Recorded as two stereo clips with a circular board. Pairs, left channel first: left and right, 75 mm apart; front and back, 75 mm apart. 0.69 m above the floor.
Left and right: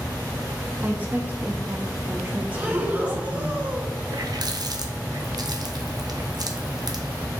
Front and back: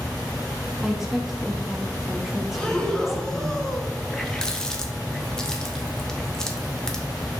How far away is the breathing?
About 0.7 m.